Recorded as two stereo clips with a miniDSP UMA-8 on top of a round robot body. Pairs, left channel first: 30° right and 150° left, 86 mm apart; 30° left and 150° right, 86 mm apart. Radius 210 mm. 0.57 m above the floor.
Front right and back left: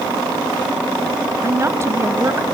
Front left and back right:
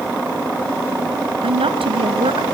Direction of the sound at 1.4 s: 150° right.